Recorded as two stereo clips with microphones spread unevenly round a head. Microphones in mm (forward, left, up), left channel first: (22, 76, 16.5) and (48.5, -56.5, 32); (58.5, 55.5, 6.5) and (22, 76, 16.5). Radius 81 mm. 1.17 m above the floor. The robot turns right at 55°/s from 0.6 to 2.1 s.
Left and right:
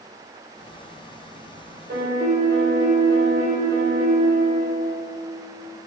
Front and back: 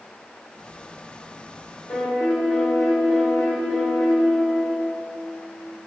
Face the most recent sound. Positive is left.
turn(degrees=-55)